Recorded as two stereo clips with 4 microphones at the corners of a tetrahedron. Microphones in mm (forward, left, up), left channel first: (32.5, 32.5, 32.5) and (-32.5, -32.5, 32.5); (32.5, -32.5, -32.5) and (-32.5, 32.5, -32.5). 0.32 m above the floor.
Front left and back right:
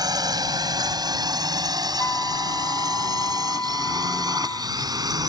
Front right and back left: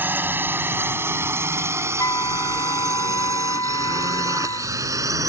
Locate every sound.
0.0 s a drone: 160° right; by 5.3 s 175° right
2.0 s a flute: 10° right